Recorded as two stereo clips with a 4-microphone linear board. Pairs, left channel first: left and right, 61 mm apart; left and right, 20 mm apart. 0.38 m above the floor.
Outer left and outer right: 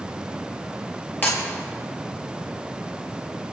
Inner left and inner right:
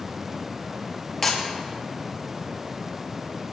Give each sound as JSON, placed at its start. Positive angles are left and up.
{"t": 1.2, "sound": "breaking glass", "side_deg": 25, "distance_m": 5.5}